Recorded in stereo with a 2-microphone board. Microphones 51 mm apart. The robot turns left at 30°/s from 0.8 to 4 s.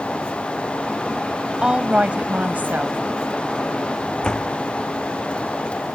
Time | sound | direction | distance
1.6 | a woman speaking | 20° right | ?
4.2 | a door slam | 15° left (ahead or behind) | ?